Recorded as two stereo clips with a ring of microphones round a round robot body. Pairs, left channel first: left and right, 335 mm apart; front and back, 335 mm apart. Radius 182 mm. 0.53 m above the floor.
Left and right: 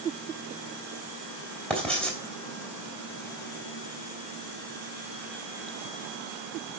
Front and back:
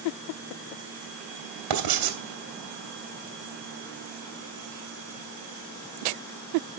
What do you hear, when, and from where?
1.7 s writing: 175° left, 2.5 m